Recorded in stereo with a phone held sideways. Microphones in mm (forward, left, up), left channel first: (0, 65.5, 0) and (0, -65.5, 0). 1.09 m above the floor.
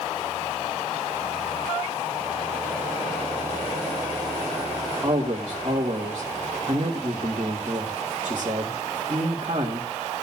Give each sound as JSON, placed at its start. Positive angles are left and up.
{"t": 5.0, "sound": "a man speaking", "side_deg": -40, "distance_m": 2.5}